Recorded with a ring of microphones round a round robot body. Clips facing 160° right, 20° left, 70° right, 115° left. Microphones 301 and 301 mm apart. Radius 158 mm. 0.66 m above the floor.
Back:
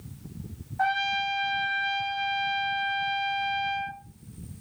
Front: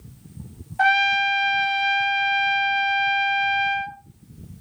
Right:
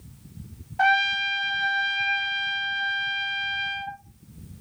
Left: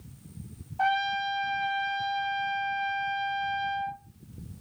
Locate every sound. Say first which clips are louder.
0.8 s a trumpet: front 6 dB, right 3 dB; 15° right, 0.5 m